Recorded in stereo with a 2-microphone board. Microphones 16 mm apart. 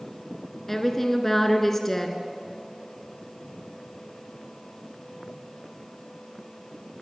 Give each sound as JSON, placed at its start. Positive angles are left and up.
{"t": 0.7, "sound": "a woman speaking", "side_deg": 15, "distance_m": 1.7}